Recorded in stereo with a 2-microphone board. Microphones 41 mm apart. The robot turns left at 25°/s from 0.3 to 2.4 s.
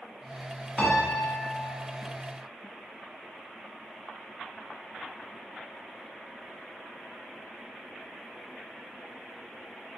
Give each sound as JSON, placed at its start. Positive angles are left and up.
{"t": 0.8, "sound": "a piano", "side_deg": 25, "distance_m": 0.8}